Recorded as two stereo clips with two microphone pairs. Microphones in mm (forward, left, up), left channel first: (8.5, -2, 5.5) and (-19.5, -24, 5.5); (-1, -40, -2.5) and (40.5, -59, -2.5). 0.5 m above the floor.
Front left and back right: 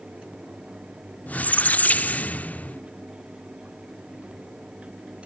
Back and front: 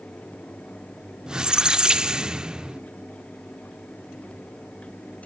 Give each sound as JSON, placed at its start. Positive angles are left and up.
{"t": 1.3, "sound": "a squeak", "azimuth_deg": 30, "distance_m": 0.5}